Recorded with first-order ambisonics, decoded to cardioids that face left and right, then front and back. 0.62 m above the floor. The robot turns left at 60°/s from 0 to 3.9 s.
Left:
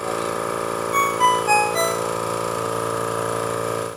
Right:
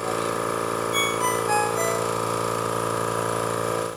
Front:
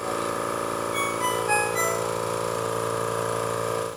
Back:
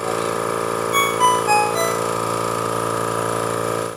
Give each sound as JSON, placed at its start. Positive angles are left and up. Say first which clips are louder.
{"t": 0.9, "sound": "a ringtone", "louder": "left 8 dB, back 12 dB", "azimuth_deg": 180, "distance_m": 2.0}